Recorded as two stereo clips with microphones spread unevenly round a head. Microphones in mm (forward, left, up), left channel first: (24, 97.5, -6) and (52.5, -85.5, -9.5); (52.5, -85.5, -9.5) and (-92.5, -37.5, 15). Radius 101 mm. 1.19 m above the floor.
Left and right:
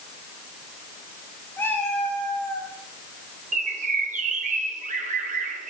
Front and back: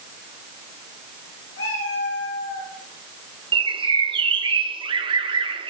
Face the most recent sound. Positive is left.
turn(degrees=-140)